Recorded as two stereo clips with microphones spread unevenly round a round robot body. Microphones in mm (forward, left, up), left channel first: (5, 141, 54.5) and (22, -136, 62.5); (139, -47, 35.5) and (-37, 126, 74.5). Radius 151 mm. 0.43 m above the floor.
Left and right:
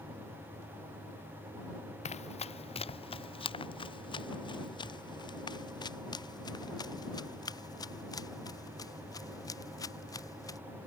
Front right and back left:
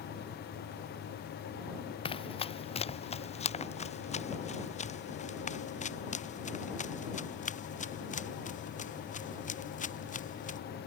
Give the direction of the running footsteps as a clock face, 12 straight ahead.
11 o'clock.